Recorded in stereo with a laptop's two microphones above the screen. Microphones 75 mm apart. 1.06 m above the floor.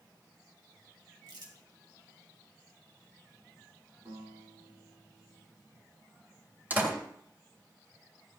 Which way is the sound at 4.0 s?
60° right (ahead or behind).